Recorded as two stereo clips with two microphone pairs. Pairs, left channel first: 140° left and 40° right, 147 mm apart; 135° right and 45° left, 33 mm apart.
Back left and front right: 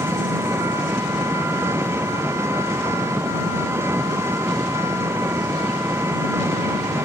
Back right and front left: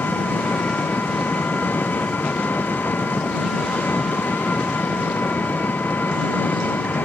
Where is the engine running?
115° right.